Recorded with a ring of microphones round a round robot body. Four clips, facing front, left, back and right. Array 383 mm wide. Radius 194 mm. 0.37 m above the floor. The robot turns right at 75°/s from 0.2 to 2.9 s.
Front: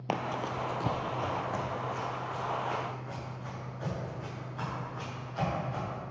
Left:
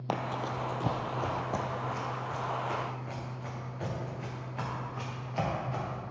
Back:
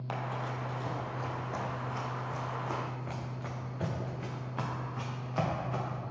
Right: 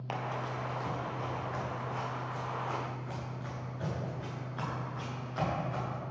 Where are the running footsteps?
40° left, 0.8 m; by 6.0 s 165° left, 4.5 m.